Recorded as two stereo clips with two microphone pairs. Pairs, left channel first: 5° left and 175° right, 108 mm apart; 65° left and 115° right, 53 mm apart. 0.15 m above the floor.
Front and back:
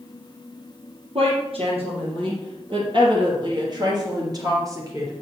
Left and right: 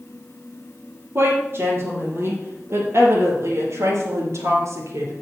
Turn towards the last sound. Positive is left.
turn(degrees=-115)